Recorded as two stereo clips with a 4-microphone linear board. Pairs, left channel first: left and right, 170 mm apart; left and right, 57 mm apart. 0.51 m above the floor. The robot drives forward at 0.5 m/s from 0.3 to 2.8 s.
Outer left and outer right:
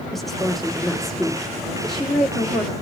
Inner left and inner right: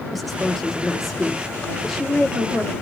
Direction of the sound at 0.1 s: Centre (ahead or behind).